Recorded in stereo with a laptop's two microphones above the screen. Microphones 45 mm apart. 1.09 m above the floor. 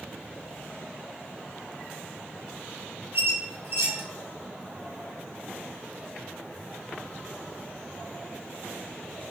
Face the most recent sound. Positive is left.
turn(degrees=-60)  # may be behind; listen again after turning